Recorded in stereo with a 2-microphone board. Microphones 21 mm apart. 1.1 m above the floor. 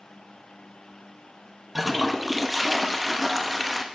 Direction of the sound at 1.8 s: 5° right (ahead or behind).